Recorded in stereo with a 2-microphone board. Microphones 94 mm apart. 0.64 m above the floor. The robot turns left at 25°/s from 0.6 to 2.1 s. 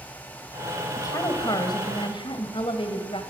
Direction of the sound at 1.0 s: 35° left (ahead or behind).